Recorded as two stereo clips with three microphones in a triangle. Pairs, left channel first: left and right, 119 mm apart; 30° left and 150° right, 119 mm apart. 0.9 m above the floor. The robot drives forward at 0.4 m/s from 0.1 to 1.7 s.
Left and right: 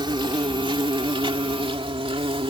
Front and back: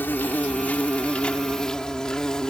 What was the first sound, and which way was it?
An insect, 45° right.